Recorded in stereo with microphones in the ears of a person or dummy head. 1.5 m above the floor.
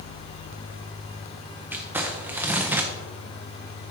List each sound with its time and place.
1.7 s crumpling: 10° right (ahead or behind), 0.7 m